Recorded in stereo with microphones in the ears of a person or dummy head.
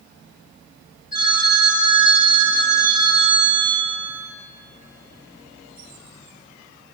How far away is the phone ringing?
About 3.5 m.